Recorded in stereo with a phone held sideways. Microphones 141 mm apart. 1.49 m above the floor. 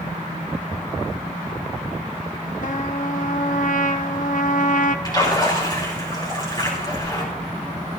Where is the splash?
30° left (ahead or behind), 5 m.